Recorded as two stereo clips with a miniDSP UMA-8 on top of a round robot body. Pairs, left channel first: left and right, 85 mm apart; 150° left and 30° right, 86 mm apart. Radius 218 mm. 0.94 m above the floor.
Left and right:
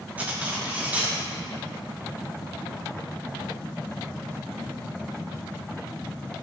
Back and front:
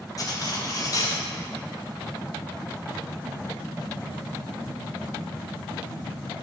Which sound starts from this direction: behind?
Cutlery clinking, at 0.2 s.